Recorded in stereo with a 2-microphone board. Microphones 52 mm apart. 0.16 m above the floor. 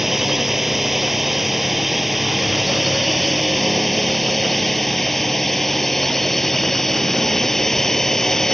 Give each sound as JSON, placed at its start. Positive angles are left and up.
{"t": 0.0, "sound": "a drone", "side_deg": -5}